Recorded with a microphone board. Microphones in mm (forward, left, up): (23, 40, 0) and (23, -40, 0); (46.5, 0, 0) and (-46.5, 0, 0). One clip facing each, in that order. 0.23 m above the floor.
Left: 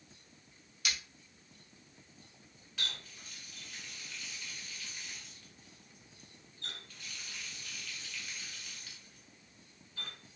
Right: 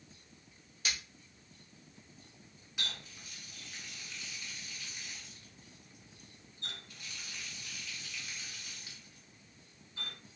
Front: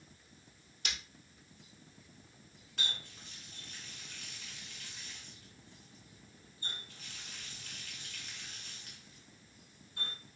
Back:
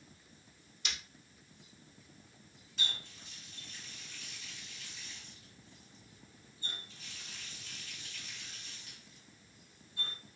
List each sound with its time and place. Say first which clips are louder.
0.8 s breaking glass: even, front 1 dB; 40° right, 1.9 m
2.8 s a running tap: even, even; 20° right, 1.6 m